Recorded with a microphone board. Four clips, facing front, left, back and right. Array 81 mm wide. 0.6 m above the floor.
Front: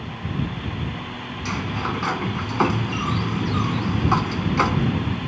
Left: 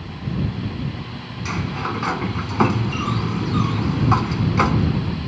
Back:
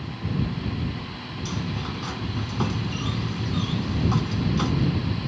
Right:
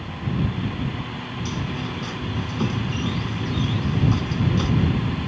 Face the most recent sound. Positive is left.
turn(degrees=50)